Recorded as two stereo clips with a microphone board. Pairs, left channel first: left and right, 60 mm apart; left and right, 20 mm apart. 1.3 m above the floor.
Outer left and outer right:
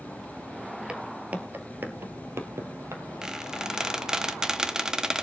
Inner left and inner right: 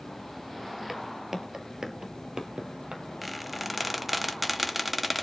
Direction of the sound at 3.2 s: 10° right (ahead or behind).